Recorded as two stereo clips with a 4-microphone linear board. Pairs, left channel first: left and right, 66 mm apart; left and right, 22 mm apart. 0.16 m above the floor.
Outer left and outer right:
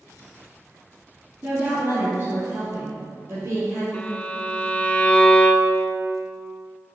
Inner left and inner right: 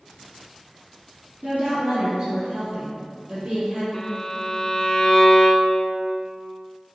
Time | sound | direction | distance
1.4 | a woman speaking | 35° right (ahead or behind) | 1.8 m
3.9 | a violin | 20° left (ahead or behind) | 0.6 m